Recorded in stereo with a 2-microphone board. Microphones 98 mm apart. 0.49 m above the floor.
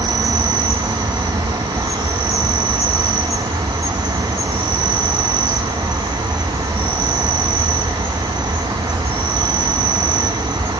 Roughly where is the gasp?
No gasp in this recording.